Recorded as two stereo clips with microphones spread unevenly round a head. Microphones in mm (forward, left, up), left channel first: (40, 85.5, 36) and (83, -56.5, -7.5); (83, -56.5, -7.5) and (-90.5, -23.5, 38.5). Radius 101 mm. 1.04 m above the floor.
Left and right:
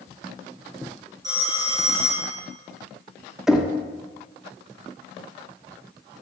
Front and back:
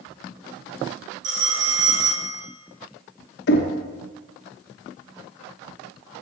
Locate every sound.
1.2 s a phone ringing: 150° right, 0.8 m
3.5 s knocking: 10° left, 0.6 m